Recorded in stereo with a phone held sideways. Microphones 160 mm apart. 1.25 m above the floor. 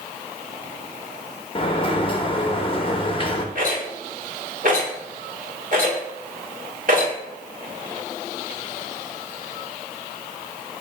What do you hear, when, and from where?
1.6 s a sliding door: 35° left (ahead or behind), 0.6 m
3.5 s a rattle: 55° right (ahead or behind), 1.6 m